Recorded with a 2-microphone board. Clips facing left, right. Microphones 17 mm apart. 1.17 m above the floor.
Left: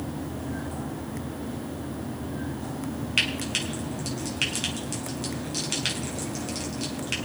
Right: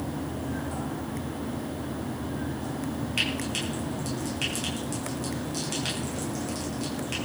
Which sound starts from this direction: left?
Frying, at 3.2 s.